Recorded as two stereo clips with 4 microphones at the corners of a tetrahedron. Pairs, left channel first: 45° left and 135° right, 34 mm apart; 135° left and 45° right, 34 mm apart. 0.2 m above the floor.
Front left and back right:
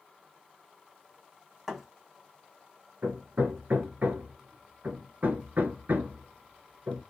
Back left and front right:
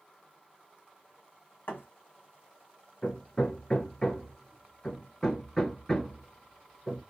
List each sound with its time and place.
1.7 s a thud: 140° left, 1.4 m
3.0 s hammering: 155° right, 0.8 m